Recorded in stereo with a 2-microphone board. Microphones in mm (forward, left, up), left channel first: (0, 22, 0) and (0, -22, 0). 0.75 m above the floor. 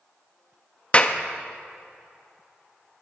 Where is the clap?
30° left (ahead or behind), 0.7 m.